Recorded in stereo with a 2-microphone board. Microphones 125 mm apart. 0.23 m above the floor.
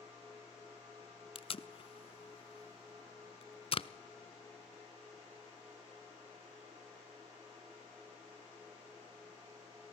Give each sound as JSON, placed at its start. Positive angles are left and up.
{"t": 1.4, "sound": "tape being pulled", "side_deg": 45, "distance_m": 0.5}